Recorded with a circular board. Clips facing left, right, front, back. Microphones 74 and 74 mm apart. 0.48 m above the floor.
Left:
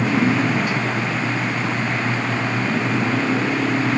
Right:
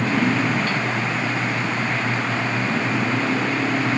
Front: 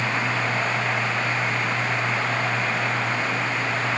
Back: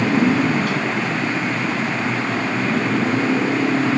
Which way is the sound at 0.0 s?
165° left.